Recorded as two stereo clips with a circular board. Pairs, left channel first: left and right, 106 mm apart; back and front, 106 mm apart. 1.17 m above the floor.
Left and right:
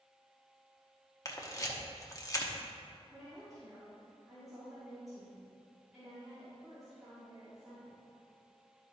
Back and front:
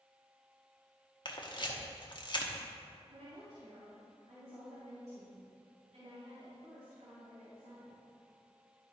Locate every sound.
1.2 s a camera shutter: 145° left, 0.9 m
3.1 s a woman speaking: straight ahead, 2 m